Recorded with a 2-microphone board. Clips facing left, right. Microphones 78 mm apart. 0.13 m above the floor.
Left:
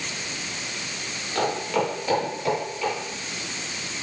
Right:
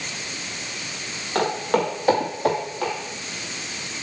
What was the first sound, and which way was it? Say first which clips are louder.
Footsteps: right 3 dB; 50° right (ahead or behind).